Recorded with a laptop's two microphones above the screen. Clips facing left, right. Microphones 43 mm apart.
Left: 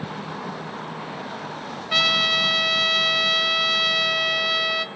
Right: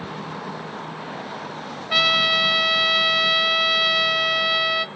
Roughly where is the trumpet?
Centre.